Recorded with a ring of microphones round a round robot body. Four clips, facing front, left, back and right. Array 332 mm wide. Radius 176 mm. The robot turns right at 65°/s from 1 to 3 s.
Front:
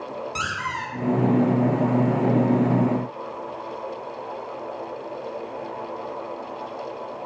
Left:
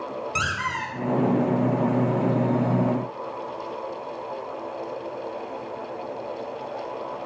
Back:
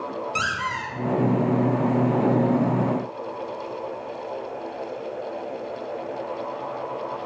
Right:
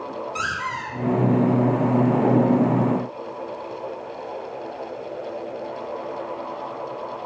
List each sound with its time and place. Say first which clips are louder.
0.3 s a squeak: left 1 dB, back 1 dB; 95° left, 3.5 m